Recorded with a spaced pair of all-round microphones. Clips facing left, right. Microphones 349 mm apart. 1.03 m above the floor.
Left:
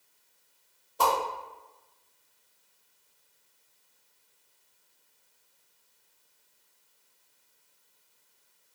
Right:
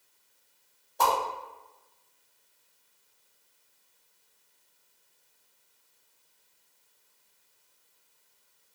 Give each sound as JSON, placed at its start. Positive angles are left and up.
{"t": 1.0, "sound": "a whoosh", "side_deg": 10, "distance_m": 1.4}